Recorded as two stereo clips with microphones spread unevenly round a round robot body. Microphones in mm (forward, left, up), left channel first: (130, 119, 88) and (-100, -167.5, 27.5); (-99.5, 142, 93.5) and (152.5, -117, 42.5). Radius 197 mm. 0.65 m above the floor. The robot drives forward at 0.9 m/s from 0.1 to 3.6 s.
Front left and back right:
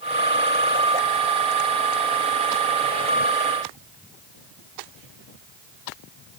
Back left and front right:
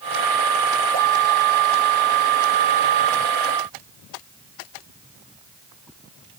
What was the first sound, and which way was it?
Only background noise.